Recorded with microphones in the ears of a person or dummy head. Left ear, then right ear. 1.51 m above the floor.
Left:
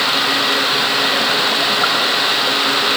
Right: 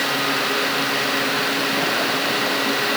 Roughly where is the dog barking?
No dog barking in this recording.